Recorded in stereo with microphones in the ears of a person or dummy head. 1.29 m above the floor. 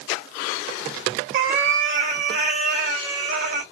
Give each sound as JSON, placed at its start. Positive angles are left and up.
{"t": 1.3, "sound": "a cat meowing", "side_deg": -35, "distance_m": 0.6}